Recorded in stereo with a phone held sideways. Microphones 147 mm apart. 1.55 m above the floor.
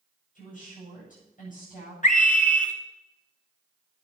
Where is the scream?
60° left (ahead or behind), 2 m.